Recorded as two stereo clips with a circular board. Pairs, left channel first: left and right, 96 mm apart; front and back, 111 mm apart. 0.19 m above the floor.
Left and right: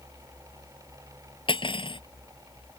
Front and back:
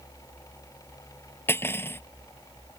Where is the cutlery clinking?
65° left.